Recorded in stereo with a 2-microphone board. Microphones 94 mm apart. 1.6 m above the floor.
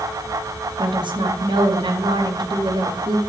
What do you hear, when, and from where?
0.8 s a woman speaking: 55° right (ahead or behind), 2.5 m